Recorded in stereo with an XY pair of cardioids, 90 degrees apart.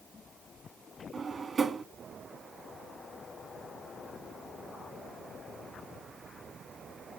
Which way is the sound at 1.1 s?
45° right.